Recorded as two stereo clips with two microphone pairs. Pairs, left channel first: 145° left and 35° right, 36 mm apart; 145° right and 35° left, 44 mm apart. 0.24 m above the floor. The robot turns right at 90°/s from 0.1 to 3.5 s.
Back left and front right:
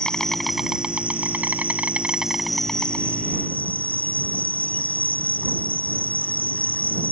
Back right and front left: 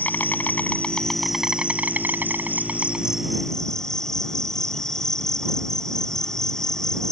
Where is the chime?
I don't hear a chime.